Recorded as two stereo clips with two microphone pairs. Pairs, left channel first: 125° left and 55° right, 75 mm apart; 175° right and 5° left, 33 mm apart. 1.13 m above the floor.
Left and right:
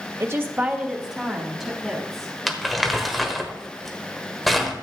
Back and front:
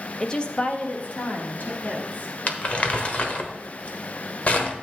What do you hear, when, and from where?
0.2 s a woman speaking: 105° right, 1.0 m; by 2.3 s 145° right, 4 m
2.5 s crumpling: 145° right, 1.2 m